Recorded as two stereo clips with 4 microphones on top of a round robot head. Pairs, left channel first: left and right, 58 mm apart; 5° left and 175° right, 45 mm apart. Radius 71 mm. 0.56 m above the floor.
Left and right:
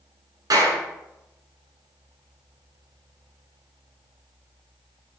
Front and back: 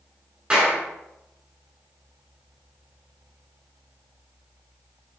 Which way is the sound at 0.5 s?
105° right.